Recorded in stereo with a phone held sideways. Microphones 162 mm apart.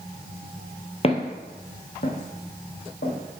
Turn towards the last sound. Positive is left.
turn(degrees=75)  # may be behind; listen again after turning